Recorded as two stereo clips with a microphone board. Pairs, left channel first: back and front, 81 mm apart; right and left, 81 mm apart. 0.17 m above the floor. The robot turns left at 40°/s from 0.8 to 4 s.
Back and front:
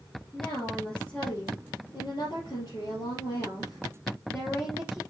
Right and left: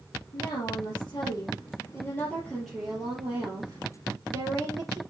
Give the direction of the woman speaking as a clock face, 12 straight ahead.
4 o'clock.